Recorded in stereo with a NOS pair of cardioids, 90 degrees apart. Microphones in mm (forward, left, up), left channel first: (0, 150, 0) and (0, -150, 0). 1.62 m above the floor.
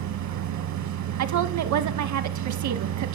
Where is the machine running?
65° right, 2.0 m.